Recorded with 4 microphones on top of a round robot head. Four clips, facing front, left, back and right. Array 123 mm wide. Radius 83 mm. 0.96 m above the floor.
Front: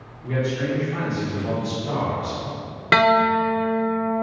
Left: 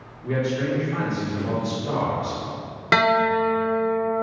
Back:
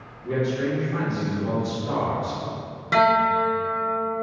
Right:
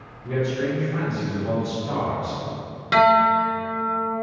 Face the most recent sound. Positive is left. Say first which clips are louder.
# right 3 dB, front 2 dB
turn(degrees=35)